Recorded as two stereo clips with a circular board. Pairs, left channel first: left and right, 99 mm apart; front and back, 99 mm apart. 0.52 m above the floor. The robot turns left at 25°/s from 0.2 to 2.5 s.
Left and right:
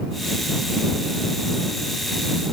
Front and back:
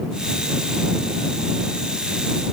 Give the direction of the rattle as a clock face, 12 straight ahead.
I don't hear a rattle.